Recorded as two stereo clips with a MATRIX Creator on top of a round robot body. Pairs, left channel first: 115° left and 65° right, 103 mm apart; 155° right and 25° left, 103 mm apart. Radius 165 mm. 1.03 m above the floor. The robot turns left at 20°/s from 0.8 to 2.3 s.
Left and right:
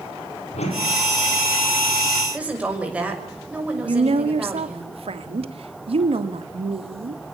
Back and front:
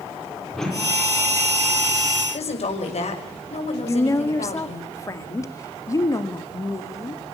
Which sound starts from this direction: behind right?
A woman speaking, at 2.3 s.